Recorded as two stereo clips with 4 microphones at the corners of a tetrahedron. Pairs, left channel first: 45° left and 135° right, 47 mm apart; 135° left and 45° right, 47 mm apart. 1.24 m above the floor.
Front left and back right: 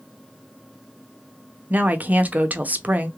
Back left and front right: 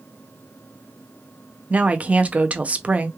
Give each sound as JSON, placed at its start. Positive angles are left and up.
{"t": 1.7, "sound": "a woman speaking", "azimuth_deg": -95, "distance_m": 0.7}